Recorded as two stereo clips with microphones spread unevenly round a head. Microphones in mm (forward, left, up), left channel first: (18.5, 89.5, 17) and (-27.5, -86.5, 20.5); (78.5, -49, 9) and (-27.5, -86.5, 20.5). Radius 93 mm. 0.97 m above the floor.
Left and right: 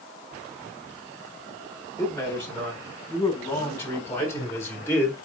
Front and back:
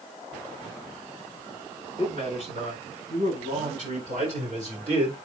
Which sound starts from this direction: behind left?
A man speaking, at 2.0 s.